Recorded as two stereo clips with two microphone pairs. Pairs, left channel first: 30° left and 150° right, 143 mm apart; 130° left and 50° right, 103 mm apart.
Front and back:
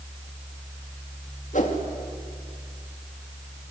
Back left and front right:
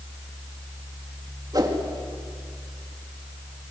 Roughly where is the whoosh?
Ahead.